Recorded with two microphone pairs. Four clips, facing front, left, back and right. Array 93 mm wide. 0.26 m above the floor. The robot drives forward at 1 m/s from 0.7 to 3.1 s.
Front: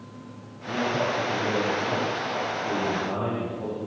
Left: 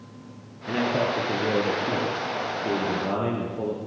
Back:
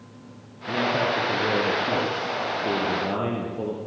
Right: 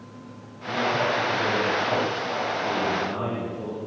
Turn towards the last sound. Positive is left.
turn(degrees=135)